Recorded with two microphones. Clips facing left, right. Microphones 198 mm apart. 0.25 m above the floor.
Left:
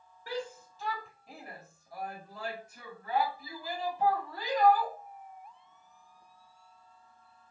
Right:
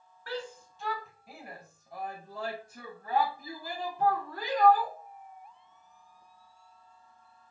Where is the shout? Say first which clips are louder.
Left 1 dB; 10° left (ahead or behind), 1.5 m; by 5.0 s 55° right (ahead or behind), 2.5 m.